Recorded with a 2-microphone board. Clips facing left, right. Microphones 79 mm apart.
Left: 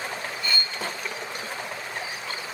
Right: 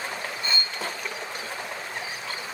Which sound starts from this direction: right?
Cutlery clinking, at 0.4 s.